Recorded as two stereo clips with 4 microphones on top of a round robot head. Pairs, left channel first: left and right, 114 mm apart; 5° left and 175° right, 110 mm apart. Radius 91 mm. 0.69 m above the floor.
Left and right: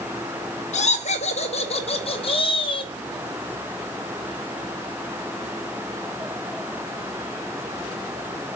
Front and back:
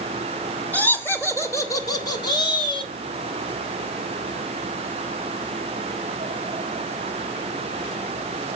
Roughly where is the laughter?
Left.